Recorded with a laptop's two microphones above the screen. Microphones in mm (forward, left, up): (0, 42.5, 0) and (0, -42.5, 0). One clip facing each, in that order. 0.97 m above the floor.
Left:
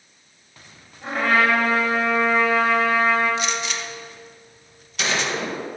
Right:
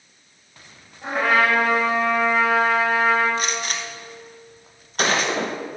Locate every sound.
1.0 s a trumpet: 10° right (ahead or behind), 3 m
3.4 s a gunshot: 45° right (ahead or behind), 0.9 m